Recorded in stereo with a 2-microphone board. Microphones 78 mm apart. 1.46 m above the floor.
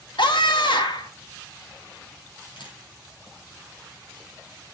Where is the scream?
80° left, 1.9 m.